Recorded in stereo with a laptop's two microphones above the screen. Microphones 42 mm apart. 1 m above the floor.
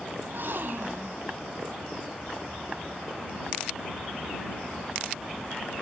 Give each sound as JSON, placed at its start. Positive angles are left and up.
{"t": 0.2, "sound": "a gasp", "side_deg": -65}